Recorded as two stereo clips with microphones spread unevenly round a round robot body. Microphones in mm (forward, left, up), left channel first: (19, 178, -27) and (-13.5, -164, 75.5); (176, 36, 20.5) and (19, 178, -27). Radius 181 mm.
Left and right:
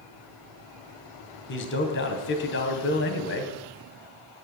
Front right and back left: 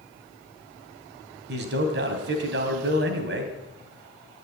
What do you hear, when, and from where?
1.5 s a man speaking: 130° left, 2.5 m